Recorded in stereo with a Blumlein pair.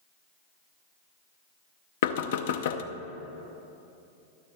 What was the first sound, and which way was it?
Knocking, 55° left.